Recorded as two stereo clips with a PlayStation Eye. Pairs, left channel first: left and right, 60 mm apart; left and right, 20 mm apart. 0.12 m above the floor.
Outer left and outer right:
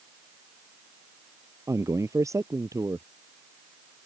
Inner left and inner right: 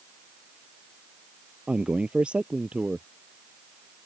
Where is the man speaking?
60° right (ahead or behind).